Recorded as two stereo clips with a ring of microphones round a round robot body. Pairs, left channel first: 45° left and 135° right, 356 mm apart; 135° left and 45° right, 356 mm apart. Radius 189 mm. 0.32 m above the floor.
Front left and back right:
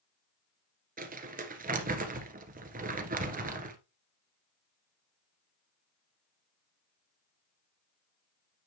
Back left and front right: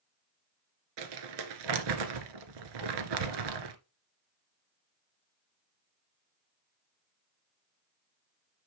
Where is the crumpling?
65° right, 1.5 m.